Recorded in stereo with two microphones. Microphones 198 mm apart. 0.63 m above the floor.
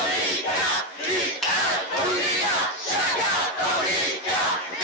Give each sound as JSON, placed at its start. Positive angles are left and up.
{"t": 1.4, "sound": "a finger snap", "side_deg": 0, "distance_m": 4.5}